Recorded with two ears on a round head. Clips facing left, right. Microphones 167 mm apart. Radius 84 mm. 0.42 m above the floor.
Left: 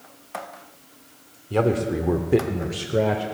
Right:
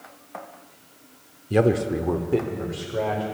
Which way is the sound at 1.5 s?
25° right (ahead or behind).